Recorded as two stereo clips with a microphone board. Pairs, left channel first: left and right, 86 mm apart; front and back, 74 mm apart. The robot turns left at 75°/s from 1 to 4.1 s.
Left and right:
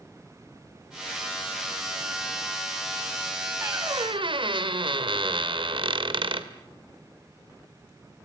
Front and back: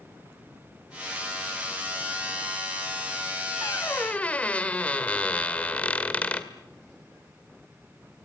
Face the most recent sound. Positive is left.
turn(degrees=-70)